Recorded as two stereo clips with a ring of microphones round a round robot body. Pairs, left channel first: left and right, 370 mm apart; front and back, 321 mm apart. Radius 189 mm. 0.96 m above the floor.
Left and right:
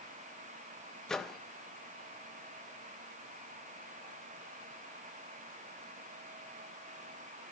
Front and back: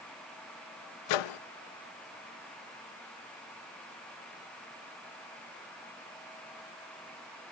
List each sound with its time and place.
1.1 s a microwave: straight ahead, 0.5 m